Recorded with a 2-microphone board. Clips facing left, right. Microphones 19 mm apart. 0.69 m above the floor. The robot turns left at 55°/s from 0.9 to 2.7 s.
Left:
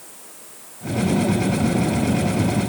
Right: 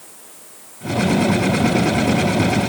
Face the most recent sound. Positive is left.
No sound to turn to.